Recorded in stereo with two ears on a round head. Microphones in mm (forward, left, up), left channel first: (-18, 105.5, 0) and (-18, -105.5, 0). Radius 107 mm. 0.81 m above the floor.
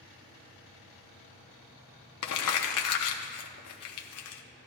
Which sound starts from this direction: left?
Crumpling, at 2.2 s.